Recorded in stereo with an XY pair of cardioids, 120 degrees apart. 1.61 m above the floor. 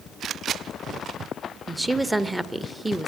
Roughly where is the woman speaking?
Ahead.